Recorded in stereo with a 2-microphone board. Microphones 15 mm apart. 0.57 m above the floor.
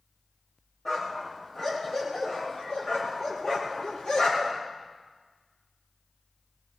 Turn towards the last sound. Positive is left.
turn(degrees=55)  # may be behind; listen again after turning